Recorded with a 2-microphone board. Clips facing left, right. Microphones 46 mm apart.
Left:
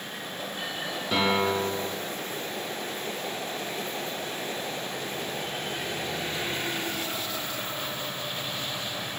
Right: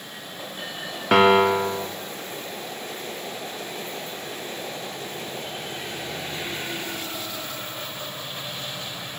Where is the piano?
60° right (ahead or behind), 0.7 m.